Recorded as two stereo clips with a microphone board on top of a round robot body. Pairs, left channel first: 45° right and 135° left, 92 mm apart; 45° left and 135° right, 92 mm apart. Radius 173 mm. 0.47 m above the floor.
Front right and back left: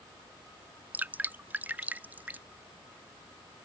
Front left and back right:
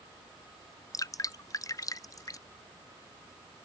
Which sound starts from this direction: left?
Dripping, at 0.9 s.